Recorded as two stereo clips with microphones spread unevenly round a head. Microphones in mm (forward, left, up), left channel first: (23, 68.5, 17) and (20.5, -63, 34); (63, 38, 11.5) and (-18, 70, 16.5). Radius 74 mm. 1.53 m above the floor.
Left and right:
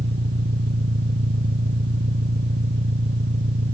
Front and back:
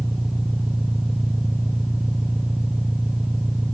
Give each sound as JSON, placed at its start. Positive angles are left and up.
{"t": 0.0, "sound": "an engine running", "azimuth_deg": -115}